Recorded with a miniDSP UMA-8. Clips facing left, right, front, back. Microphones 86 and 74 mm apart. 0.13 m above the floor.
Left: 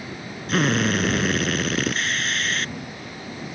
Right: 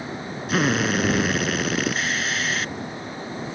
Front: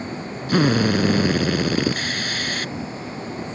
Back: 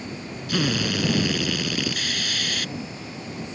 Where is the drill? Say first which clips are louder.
Even, front 7 dB; 5° right.